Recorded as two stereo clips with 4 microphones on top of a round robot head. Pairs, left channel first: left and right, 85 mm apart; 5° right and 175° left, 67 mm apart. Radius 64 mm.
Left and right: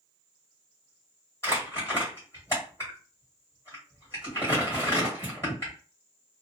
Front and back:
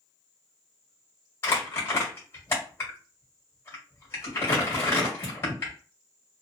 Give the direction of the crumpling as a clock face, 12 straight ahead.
11 o'clock.